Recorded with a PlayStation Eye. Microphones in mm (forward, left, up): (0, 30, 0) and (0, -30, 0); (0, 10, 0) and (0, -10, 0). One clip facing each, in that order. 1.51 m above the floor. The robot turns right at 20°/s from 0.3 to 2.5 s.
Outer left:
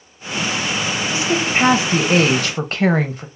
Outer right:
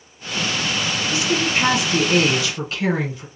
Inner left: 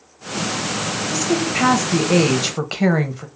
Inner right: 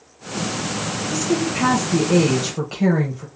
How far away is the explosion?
No explosion in this recording.